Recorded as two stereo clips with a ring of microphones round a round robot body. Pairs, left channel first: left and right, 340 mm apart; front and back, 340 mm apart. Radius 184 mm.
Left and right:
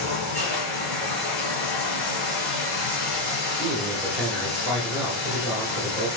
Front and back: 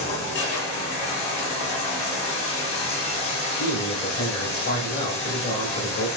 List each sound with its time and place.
0.0 s running water: 25° left, 0.9 m
3.5 s a man speaking: 5° right, 1.1 m